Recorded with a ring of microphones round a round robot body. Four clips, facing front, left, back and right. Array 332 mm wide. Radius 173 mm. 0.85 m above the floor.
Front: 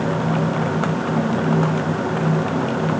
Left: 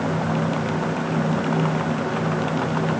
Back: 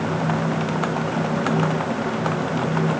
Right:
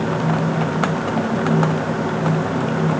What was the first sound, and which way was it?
Only background noise.